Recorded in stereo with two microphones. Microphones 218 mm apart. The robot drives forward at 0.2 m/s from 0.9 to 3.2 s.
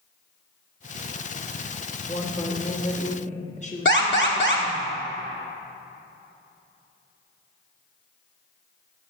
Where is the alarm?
55° left (ahead or behind), 1.3 m.